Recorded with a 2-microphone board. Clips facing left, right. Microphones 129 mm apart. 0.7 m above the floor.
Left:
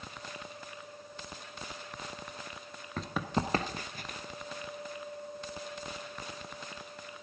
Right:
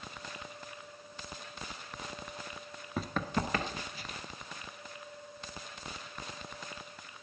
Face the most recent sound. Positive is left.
turn(degrees=55)  # may be behind; listen again after turning